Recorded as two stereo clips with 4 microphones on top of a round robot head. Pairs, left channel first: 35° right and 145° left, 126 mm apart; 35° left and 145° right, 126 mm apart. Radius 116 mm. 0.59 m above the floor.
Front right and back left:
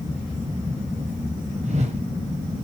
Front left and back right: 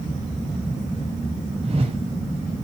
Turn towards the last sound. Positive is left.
turn(degrees=175)